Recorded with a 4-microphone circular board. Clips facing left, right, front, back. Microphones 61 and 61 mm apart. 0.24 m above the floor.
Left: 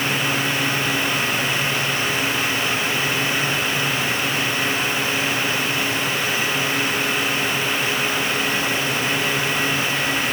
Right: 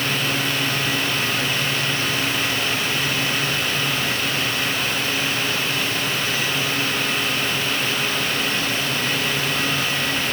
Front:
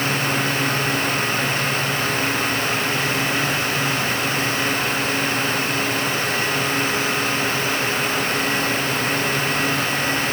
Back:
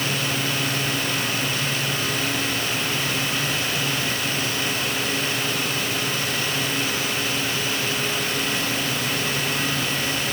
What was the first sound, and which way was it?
Only background noise.